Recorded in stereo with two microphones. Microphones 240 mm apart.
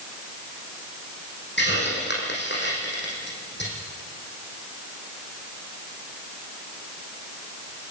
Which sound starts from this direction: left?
A hiss, at 1.6 s.